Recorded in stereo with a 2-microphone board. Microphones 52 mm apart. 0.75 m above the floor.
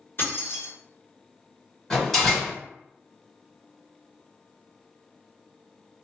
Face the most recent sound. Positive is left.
turn(degrees=5)  # may be behind; listen again after turning